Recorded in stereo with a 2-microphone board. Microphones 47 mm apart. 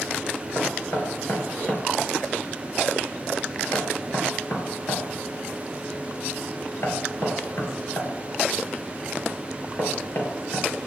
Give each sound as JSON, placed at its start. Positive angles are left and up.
{"t": 0.6, "sound": "knocking", "side_deg": 55, "distance_m": 2.0}